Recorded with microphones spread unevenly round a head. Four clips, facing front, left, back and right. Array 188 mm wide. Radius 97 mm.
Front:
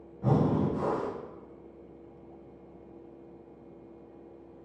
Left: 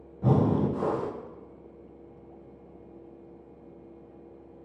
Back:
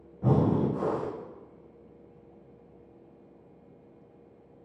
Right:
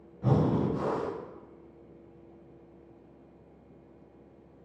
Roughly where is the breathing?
Behind left.